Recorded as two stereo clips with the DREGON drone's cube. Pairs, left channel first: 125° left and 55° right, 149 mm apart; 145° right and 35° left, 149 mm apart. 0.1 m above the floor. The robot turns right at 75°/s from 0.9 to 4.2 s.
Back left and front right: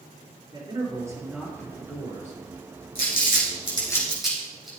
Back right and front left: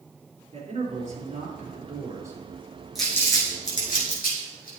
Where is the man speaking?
Straight ahead, 3 m; by 2.4 s 110° left, 3 m.